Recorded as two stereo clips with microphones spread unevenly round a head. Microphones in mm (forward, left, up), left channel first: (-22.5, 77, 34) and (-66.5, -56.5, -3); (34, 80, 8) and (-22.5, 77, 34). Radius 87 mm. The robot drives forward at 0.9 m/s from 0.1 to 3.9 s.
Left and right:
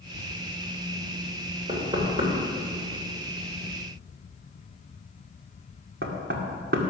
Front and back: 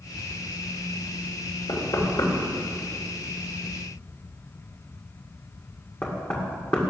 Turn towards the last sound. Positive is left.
turn(degrees=-75)